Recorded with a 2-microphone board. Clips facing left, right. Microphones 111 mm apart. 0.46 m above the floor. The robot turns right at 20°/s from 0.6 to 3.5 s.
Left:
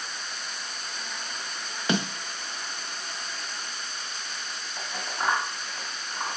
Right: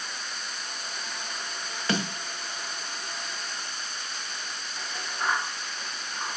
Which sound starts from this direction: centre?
A snare drum, at 1.9 s.